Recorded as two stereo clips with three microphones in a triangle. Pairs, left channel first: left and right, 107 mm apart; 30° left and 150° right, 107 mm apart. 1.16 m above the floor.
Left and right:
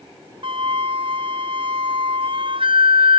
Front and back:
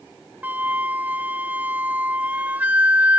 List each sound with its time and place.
0.4 s a flute: 75° right